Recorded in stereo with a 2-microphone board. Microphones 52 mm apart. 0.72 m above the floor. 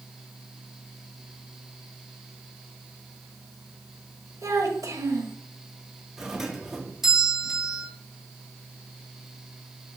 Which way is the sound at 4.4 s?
80° right.